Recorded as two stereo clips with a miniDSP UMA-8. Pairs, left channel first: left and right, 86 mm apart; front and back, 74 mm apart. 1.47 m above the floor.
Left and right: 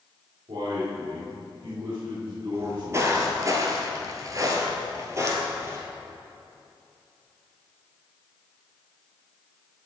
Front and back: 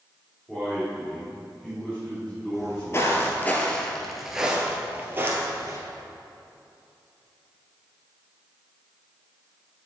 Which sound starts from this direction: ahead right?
Footsteps, at 2.5 s.